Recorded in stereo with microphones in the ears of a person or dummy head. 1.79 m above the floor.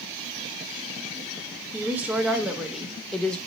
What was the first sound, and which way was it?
A woman speaking, 15° right (ahead or behind).